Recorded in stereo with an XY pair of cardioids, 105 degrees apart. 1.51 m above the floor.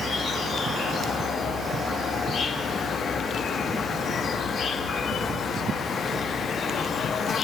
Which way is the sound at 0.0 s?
65° left.